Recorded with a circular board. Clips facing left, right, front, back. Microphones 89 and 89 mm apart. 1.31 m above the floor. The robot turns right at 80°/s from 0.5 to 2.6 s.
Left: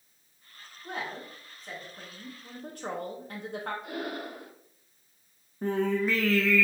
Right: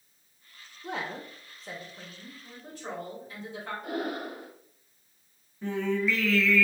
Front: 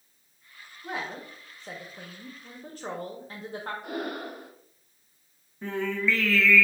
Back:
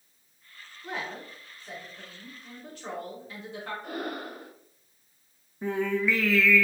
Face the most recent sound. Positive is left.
turn(degrees=110)